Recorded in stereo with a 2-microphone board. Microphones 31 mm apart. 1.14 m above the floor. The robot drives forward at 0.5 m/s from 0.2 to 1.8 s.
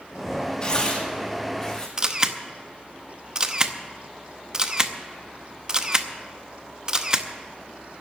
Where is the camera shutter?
25° right (ahead or behind), 0.7 m.